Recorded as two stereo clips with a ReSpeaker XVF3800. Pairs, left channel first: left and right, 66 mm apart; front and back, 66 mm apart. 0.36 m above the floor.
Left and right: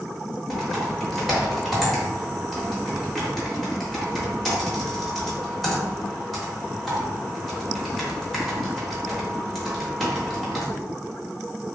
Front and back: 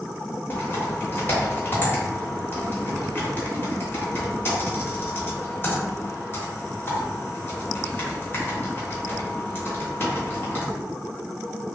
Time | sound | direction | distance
0.5 | typing on a keyboard | straight ahead | 0.9 m